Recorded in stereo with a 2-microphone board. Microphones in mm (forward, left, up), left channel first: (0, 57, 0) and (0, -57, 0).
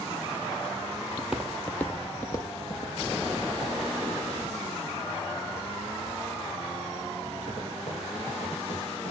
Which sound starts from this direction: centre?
Footsteps, at 1.2 s.